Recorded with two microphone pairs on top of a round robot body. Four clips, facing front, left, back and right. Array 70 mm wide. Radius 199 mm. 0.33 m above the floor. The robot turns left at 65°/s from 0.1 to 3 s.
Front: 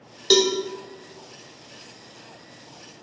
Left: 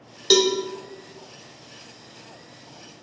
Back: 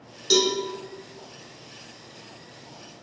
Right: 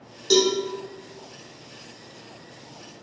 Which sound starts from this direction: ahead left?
A cowbell, at 0.3 s.